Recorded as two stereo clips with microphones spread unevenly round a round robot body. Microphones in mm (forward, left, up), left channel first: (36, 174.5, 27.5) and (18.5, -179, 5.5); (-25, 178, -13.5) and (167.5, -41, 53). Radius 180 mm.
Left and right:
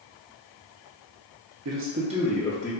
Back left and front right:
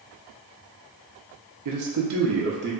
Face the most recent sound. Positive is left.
turn(degrees=15)